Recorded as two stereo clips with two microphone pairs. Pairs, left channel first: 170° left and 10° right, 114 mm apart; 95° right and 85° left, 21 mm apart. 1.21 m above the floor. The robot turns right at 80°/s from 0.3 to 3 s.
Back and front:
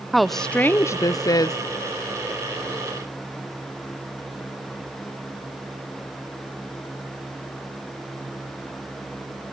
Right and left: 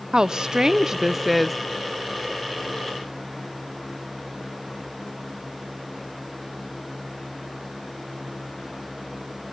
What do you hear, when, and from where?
0.1 s a woman speaking: 85° left, 0.5 m; by 1.6 s 175° right, 0.5 m